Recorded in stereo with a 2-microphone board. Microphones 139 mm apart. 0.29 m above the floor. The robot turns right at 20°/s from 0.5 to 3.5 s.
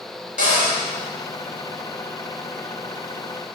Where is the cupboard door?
65° left (ahead or behind), 0.6 m.